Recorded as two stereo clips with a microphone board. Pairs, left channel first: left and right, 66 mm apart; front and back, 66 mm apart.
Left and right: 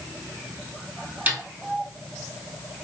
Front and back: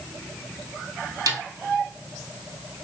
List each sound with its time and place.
1.3 s a snare drum: 150° right, 1.3 m